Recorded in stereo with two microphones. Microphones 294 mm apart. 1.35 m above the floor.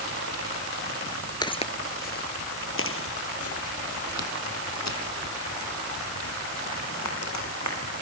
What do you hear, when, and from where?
1.4 s footsteps: 15° left (ahead or behind), 1.4 m; by 7.8 s 70° left (ahead or behind), 5.5 m